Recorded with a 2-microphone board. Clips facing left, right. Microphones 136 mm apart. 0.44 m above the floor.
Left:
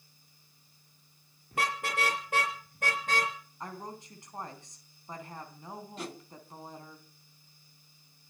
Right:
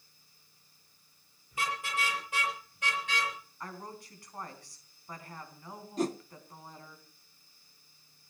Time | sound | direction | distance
1.5 | a car horn | 65° left (ahead or behind) | 6 m
3.6 | a woman speaking | 20° left (ahead or behind) | 3.5 m
6.0 | a whoosh | 40° right (ahead or behind) | 0.6 m